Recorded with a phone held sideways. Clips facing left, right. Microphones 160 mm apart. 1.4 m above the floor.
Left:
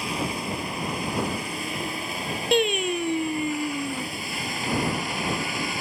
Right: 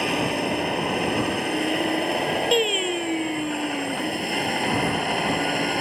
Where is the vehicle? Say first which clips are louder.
Right 6 dB; 65° right (ahead or behind); by 5.8 s 60° right (ahead or behind).